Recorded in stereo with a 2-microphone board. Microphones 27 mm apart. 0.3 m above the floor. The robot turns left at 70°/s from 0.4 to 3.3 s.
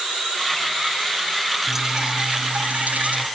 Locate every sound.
1.7 s dripping: straight ahead, 5.5 m; by 3.3 s 110° right, 5.5 m